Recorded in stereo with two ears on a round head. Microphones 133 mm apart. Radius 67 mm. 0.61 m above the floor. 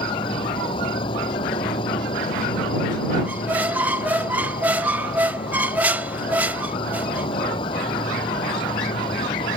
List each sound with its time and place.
0.0 s an insect: 35° left (ahead or behind)
3.2 s a squeak: 10° right (ahead or behind)